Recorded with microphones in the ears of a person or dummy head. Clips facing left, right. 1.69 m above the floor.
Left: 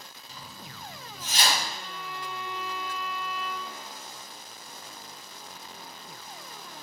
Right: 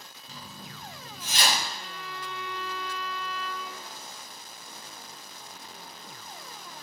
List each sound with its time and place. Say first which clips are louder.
0.3 s a zipper: right 2 dB; 40° right (ahead or behind), 0.6 m
1.7 s a violin: left 1 dB; 15° right (ahead or behind), 0.8 m